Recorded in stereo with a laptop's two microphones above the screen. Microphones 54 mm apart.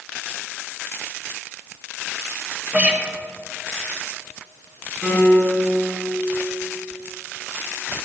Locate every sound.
2.7 s a guitar: 30° right (ahead or behind), 0.9 m
5.0 s a piano: 35° right (ahead or behind), 3 m